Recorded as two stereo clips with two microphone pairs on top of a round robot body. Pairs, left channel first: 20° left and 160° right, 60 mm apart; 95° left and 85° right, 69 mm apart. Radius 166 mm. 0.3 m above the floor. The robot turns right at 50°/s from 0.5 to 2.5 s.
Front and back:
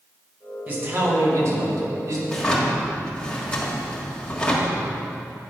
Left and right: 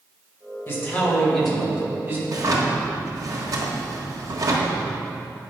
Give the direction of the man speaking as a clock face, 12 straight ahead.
7 o'clock.